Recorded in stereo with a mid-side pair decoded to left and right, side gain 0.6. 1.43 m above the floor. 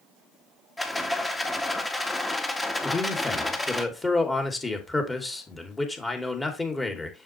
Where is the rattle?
15° left, 1.9 m.